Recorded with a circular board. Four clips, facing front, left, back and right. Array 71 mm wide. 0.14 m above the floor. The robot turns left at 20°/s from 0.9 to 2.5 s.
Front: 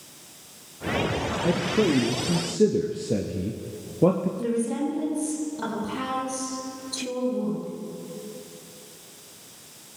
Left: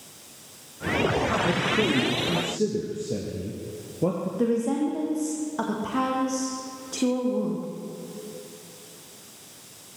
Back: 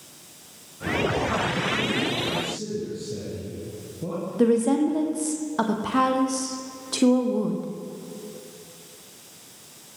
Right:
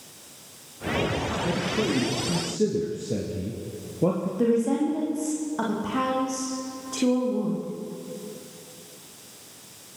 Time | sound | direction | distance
1.4 | a man speaking | 15° left | 2 m
4.4 | a woman speaking | straight behind | 4.5 m